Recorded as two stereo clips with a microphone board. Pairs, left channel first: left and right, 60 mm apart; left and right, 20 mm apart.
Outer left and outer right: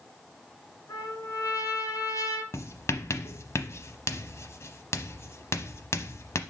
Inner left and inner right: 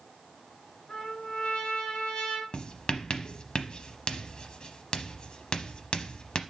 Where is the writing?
50° left (ahead or behind), 0.8 m.